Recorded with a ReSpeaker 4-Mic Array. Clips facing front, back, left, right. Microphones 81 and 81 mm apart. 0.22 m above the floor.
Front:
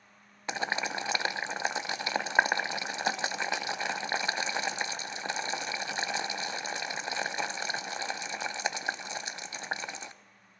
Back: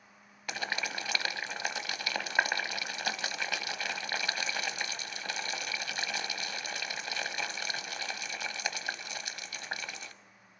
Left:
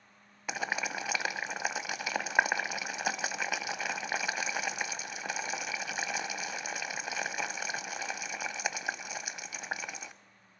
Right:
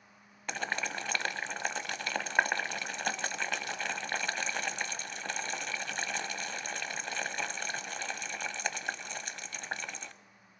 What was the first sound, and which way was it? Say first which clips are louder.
Boiling: front 4 dB, left 1 dB; 20° left.